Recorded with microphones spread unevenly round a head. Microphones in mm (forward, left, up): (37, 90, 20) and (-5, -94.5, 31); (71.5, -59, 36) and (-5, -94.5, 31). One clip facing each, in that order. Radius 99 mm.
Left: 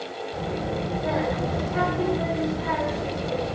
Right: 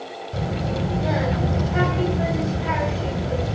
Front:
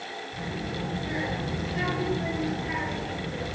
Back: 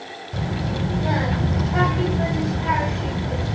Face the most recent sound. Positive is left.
turn(degrees=-160)